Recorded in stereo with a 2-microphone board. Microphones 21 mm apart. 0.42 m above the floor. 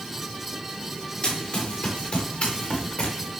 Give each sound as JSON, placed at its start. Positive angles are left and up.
{"t": 1.2, "sound": "running footsteps", "side_deg": 75, "distance_m": 5.0}